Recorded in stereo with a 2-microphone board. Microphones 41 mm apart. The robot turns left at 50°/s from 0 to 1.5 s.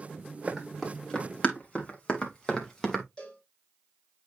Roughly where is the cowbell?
Centre.